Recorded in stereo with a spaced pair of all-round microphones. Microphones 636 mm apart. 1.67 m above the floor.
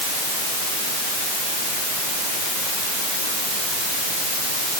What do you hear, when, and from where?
Only background noise.